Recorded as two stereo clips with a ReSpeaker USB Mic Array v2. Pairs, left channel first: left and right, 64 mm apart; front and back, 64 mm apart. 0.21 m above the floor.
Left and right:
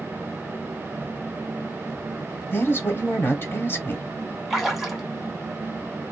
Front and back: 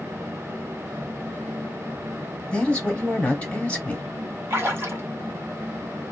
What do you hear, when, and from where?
2.5 s a man speaking: 65° left, 1.5 m
4.5 s a splash: 175° right, 1.7 m